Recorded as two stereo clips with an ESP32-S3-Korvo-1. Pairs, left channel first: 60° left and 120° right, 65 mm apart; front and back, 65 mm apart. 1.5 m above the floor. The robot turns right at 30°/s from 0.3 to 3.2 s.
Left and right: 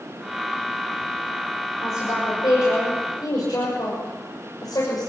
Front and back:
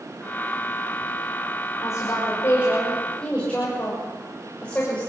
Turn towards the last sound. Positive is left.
turn(degrees=75)